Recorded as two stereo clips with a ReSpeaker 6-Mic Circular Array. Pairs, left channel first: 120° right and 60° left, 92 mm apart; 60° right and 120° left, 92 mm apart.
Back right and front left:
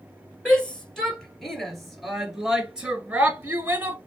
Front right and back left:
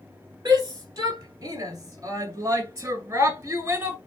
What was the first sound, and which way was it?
A shout, 160° left.